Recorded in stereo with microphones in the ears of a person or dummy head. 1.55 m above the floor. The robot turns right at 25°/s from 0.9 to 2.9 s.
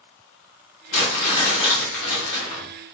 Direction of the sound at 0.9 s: 50° left.